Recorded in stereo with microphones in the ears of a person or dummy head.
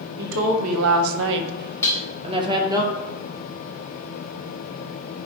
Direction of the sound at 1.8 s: 15° left (ahead or behind).